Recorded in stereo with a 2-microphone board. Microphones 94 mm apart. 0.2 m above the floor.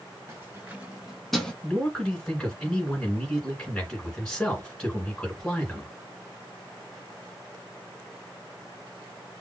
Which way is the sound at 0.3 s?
30° right (ahead or behind).